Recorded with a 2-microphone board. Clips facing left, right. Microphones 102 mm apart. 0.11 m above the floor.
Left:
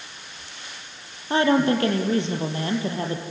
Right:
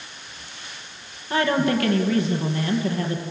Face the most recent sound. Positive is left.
turn(degrees=30)  # may be behind; listen again after turning